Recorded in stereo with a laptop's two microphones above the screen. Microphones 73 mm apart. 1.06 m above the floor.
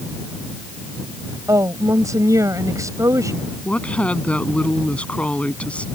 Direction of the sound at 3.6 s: 15° left (ahead or behind).